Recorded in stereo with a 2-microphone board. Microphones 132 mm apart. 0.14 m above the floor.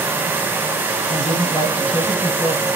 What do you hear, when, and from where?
1.1 s a woman speaking: 45° left (ahead or behind), 1.9 m